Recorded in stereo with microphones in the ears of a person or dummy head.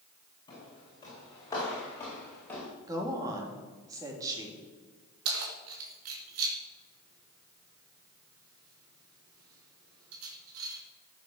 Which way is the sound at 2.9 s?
15° right (ahead or behind).